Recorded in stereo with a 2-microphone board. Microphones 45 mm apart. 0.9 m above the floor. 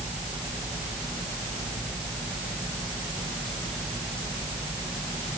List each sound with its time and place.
Only background noise.